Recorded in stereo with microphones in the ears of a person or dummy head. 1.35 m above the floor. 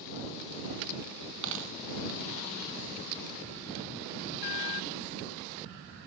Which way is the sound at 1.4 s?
75° right (ahead or behind).